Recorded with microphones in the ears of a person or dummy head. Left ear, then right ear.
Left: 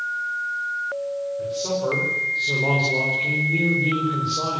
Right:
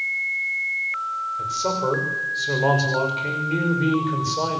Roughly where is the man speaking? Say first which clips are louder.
Right 2 dB; right.